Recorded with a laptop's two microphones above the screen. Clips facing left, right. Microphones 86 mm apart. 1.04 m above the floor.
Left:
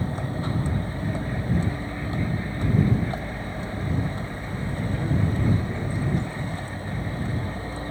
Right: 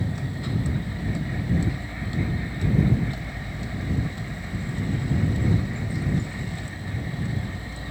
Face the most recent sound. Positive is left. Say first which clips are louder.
# left 2 dB
turn(degrees=35)  # may be behind; listen again after turning